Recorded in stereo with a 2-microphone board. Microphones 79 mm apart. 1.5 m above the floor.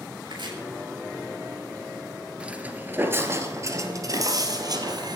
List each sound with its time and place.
0.2 s chopping: 80° right, 5.5 m
2.4 s footsteps: 15° right (ahead or behind), 1.8 m; by 5.2 s 60° right (ahead or behind), 3 m